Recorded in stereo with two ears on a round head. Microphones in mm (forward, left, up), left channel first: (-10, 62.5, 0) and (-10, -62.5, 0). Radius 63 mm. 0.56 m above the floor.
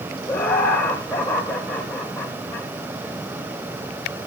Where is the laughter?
15° left (ahead or behind), 2 m.